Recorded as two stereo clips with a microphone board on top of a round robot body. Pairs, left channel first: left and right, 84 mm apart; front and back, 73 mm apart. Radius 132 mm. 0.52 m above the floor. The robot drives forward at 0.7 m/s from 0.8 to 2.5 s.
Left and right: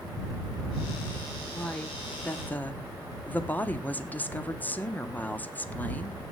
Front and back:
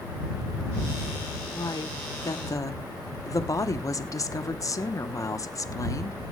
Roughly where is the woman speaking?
Ahead.